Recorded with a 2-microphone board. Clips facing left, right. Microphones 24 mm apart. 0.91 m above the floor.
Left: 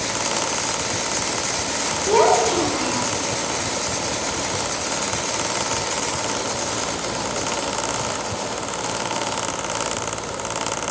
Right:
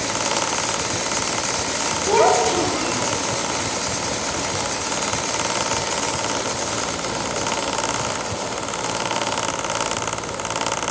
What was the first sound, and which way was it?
A child speaking, 10° left (ahead or behind).